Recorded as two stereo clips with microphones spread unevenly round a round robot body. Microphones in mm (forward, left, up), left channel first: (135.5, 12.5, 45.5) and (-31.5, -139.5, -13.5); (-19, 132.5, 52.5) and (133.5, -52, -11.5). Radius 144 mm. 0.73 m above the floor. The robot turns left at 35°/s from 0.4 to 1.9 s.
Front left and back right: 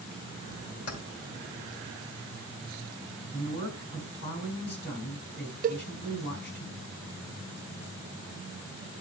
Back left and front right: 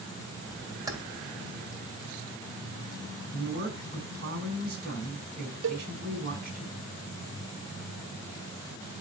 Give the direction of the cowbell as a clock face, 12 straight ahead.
3 o'clock.